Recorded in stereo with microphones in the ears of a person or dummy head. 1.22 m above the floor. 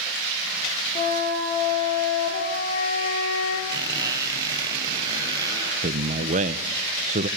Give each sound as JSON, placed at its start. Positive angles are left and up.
{"t": 0.9, "sound": "a flute", "side_deg": 30, "distance_m": 9.5}
{"t": 3.7, "sound": "a squeak", "side_deg": -20, "distance_m": 5.5}
{"t": 5.8, "sound": "a man speaking", "side_deg": -45, "distance_m": 0.9}